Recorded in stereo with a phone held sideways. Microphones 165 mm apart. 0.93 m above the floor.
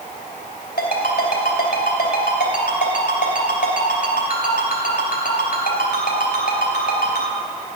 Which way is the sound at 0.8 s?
80° left.